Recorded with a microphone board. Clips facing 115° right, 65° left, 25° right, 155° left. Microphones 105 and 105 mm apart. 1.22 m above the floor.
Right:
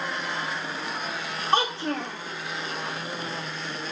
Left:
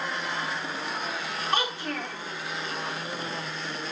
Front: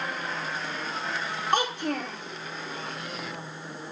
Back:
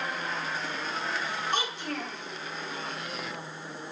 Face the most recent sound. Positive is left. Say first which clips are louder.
# right 6 dB, front 10 dB
turn(degrees=-55)